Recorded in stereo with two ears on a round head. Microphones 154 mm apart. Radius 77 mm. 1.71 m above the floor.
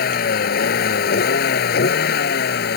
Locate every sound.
0.0 s a vehicle: 60° left (ahead or behind); by 2.8 s 65° left (ahead or behind)